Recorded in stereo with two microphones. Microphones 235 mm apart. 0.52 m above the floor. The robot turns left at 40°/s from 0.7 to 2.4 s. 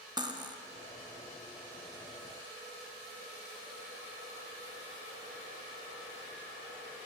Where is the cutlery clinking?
15° right (ahead or behind), 0.7 m.